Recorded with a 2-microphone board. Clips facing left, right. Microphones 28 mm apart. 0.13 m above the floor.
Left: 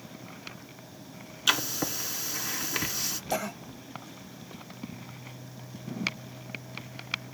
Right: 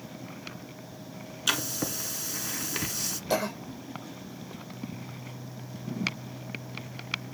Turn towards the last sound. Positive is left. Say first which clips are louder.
# right 4 dB
turn(degrees=-75)  # may be behind; listen again after turning